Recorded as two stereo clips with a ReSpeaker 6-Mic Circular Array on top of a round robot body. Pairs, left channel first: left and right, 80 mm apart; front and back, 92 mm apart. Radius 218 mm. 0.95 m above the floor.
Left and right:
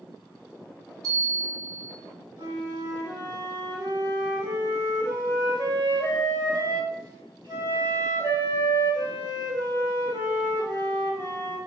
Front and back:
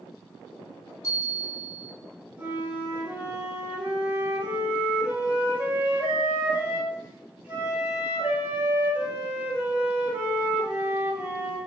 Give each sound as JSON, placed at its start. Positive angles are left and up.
{"t": 1.0, "sound": "a bell", "azimuth_deg": -50, "distance_m": 4.5}
{"t": 2.4, "sound": "a flute", "azimuth_deg": -105, "distance_m": 3.5}